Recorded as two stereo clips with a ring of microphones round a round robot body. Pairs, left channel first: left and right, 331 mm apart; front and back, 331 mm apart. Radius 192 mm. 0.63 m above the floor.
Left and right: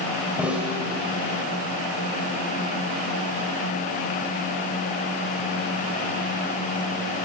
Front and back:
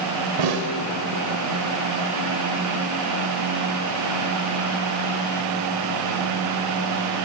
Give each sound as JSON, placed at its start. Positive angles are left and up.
{"t": 0.4, "sound": "a snare drum", "azimuth_deg": -175, "distance_m": 2.5}